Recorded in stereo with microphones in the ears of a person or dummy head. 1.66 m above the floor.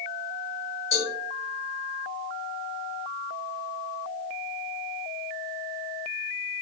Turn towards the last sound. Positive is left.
turn(degrees=55)  # may be behind; listen again after turning